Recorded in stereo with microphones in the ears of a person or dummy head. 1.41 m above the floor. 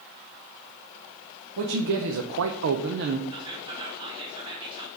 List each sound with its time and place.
1.6 s a man speaking: 55° right (ahead or behind), 0.9 m; by 3.2 s 50° right (ahead or behind), 0.7 m
3.3 s whispering: 25° right (ahead or behind), 0.9 m